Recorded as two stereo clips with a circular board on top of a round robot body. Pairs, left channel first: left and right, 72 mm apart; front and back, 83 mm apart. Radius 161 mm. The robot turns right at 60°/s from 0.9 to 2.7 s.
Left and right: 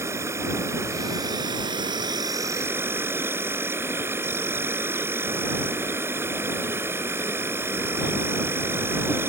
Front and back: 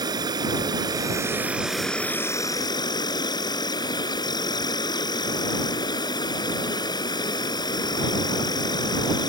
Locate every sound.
0.0 s an insect: 145° right; by 9.3 s 35° right